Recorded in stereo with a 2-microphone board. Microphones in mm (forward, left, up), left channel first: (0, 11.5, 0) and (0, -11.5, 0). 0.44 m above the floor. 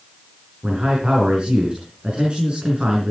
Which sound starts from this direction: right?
A man speaking, at 0.6 s.